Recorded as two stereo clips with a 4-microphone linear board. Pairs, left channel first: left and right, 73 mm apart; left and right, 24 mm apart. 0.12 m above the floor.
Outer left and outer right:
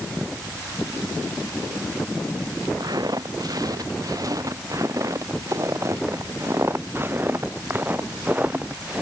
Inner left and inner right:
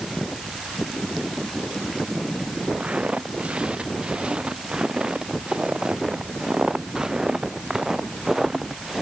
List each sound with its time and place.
2.8 s footsteps: 60° right (ahead or behind); by 9.0 s 15° right (ahead or behind)